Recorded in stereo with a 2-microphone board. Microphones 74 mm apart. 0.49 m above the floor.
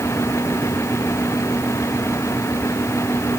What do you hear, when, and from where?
Only background noise.